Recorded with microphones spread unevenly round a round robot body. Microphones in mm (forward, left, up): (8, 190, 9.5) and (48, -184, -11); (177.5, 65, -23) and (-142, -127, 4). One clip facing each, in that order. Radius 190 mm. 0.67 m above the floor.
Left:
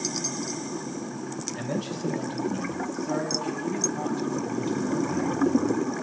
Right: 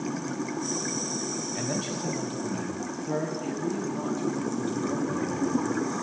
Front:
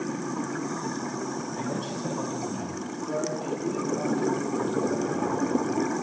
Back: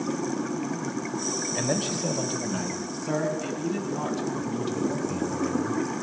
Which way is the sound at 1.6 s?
165° right.